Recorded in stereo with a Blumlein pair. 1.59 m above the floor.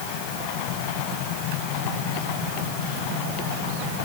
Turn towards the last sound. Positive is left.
No sound to turn to.